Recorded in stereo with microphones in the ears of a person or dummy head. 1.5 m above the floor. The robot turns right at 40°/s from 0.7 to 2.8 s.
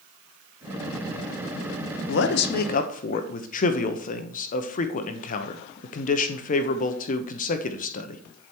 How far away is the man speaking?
About 1.0 m.